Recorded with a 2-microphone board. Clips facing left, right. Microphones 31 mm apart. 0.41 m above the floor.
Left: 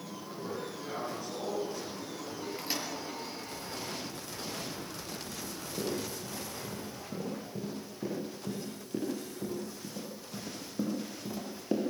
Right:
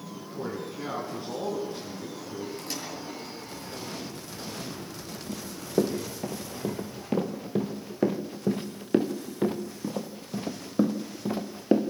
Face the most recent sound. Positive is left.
turn(degrees=-30)  # may be behind; listen again after turning